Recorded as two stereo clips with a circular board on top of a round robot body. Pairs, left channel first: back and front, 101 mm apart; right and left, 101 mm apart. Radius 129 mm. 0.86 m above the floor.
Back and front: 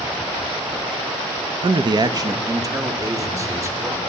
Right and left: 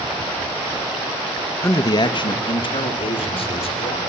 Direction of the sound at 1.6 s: 25° right.